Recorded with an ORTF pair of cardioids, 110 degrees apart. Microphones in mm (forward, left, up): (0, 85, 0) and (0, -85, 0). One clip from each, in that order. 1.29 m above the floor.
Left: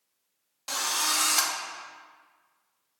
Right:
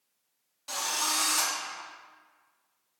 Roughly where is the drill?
Ahead left.